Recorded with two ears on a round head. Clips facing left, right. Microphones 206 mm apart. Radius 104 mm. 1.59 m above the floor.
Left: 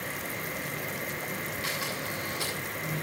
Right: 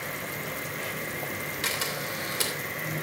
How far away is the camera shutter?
About 3 m.